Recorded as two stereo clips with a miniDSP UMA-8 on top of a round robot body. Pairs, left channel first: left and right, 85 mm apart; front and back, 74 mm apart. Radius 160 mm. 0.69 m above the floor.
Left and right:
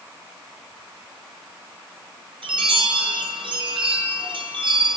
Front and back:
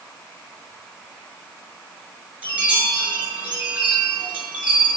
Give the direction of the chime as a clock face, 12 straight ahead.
4 o'clock.